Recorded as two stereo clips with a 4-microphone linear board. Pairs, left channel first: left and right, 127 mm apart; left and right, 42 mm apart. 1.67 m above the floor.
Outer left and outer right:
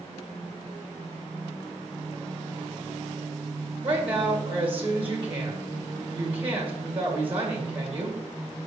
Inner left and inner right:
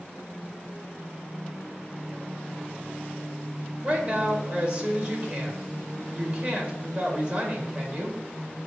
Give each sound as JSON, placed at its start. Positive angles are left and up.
{"t": 3.8, "sound": "a woman speaking", "side_deg": -45, "distance_m": 2.0}